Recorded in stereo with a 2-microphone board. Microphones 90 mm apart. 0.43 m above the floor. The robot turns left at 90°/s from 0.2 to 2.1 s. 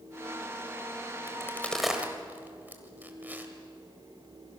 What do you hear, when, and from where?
1.3 s a crack: 40° left (ahead or behind), 2 m; by 3.5 s 20° right (ahead or behind), 2 m